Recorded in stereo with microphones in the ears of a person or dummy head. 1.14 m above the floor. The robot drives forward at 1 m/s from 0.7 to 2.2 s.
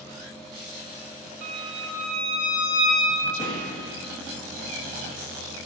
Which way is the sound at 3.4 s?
40° left (ahead or behind).